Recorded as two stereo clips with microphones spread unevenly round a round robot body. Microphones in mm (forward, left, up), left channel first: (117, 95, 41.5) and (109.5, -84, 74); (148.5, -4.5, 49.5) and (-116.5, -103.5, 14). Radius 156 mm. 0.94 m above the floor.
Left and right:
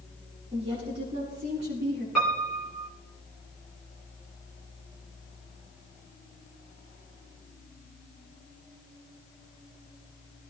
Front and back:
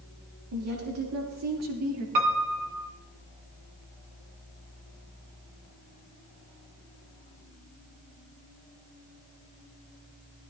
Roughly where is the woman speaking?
Behind.